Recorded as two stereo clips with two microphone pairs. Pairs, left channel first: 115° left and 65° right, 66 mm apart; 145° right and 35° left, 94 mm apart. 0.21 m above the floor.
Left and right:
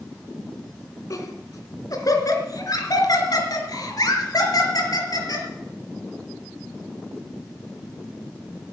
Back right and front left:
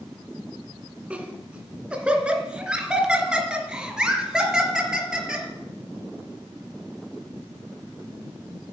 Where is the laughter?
110° left, 2 m; by 5.5 s 120° left, 4 m.